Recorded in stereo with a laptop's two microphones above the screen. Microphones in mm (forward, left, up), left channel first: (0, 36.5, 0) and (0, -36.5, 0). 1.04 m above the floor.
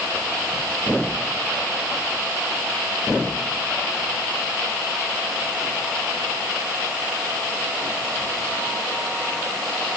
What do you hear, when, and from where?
Only background noise.